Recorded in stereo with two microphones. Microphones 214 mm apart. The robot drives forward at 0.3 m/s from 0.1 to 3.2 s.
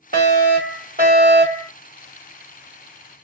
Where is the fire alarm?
45° right (ahead or behind), 2.5 m; by 1.7 s 40° right (ahead or behind), 2.5 m.